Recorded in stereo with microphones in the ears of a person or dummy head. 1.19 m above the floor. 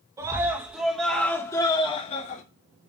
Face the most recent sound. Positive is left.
turn(degrees=45)  # may be behind; listen again after turning